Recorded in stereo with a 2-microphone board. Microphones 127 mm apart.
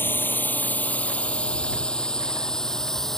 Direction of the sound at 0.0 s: 15° left (ahead or behind).